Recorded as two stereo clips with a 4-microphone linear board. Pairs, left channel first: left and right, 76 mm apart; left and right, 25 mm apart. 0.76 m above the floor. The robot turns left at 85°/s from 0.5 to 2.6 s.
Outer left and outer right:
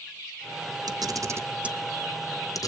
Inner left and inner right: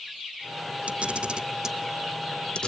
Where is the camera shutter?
60° right (ahead or behind), 0.7 m; by 2.7 s 50° left (ahead or behind), 0.7 m.